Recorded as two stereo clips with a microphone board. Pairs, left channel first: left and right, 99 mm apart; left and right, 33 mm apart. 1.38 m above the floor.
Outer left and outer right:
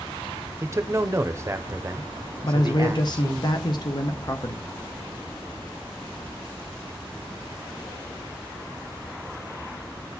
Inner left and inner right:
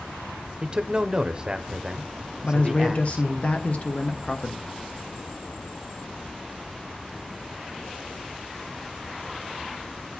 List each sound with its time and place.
0.6 s a man speaking: 30° right (ahead or behind), 0.5 m
2.4 s a man speaking: 45° left (ahead or behind), 0.6 m